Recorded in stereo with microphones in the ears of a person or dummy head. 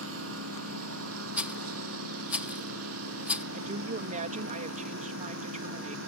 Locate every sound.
0.0 s a lawn mower: 75° right (ahead or behind); by 6.1 s 80° right
1.4 s a rattle: 10° right (ahead or behind)
3.5 s a woman speaking: 45° right (ahead or behind)